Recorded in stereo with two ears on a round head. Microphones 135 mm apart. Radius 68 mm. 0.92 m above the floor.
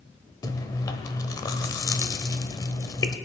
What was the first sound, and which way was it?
Chewing, 25° left (ahead or behind).